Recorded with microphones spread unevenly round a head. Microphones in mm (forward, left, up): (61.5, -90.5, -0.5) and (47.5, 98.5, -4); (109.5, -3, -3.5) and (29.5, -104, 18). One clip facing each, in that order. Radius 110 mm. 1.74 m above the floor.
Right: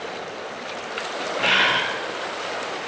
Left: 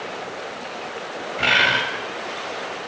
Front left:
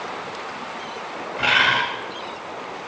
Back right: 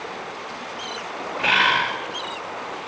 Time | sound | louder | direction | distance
1.4 | a bird | left 1 dB, even | 80° left | 3 m